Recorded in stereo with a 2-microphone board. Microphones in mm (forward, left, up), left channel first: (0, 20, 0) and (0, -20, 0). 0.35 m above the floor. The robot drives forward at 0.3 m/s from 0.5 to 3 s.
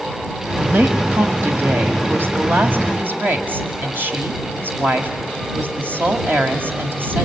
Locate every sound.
0.6 s a woman speaking: 55° right (ahead or behind), 2 m